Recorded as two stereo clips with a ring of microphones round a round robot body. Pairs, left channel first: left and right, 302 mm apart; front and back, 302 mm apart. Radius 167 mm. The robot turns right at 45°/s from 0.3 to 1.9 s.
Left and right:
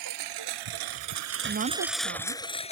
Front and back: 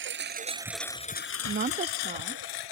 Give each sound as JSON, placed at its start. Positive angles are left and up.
{"t": 0.0, "sound": "a lawn mower", "azimuth_deg": -130}
{"t": 1.4, "sound": "a woman speaking", "azimuth_deg": -140}